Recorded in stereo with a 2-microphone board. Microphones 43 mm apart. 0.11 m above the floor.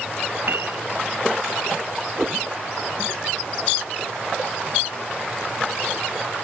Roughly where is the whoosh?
Centre.